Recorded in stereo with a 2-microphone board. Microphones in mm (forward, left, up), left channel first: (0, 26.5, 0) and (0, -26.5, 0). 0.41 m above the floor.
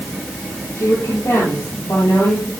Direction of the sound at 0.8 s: 85° left.